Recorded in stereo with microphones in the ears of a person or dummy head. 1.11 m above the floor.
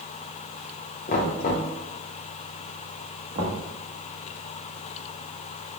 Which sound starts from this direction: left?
Knocking, at 1.1 s.